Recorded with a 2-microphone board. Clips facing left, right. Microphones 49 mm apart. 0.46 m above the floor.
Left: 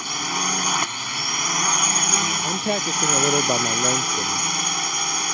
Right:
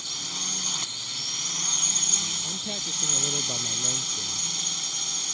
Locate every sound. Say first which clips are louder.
0.0 s a drone: left 12 dB; 55° left (ahead or behind)
2.4 s a man speaking: left 12 dB; 50° left (ahead or behind)